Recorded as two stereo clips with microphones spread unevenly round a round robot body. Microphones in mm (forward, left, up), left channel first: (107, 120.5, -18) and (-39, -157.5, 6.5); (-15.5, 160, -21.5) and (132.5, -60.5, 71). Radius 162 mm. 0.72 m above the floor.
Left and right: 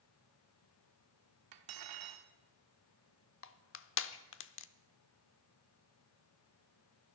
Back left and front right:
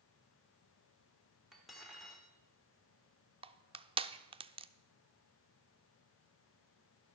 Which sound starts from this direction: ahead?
Crushing, at 3.4 s.